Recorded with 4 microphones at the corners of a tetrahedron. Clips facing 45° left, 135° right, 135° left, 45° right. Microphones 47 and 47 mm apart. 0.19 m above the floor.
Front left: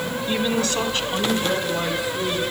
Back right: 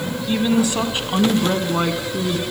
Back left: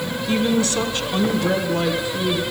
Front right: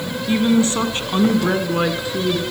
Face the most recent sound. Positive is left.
turn(degrees=-100)